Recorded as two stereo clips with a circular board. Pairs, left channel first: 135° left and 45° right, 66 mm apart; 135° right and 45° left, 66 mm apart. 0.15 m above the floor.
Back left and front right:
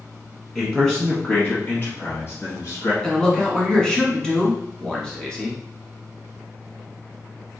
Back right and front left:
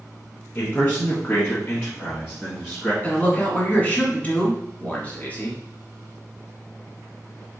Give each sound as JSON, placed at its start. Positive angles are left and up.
{"t": 0.6, "sound": "a man speaking", "azimuth_deg": -130, "distance_m": 1.2}
{"t": 3.0, "sound": "a man speaking", "azimuth_deg": -160, "distance_m": 1.3}